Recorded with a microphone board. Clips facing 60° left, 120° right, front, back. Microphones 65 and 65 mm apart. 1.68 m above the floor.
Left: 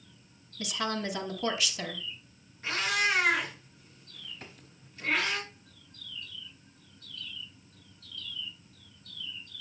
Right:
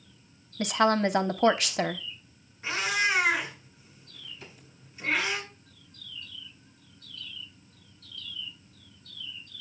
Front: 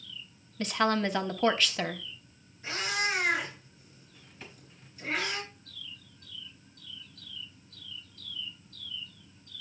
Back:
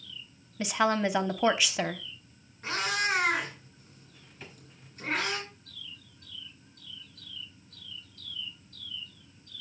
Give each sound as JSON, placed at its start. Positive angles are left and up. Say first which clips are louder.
{"t": 0.6, "sound": "a woman speaking", "louder": "right 9 dB, back 1 dB", "azimuth_deg": -100, "distance_m": 0.9}
{"t": 2.6, "sound": "a cat meowing", "louder": "right 1 dB, back 2 dB", "azimuth_deg": 160, "distance_m": 4.0}
{"t": 4.4, "sound": "a drawer", "louder": "even, even", "azimuth_deg": 95, "distance_m": 4.5}